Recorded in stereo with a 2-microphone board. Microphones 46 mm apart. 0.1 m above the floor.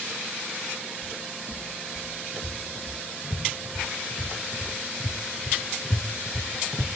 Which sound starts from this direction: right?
Footsteps, at 1.0 s.